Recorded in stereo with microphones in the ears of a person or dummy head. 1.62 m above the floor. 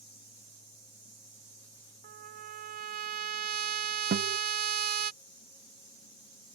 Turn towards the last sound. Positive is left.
turn(degrees=-55)  # may be behind; listen again after turning